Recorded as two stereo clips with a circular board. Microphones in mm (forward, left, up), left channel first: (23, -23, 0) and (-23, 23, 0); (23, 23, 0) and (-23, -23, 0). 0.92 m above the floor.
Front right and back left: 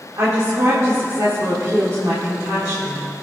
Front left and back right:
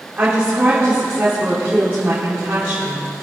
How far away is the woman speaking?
About 2.5 m.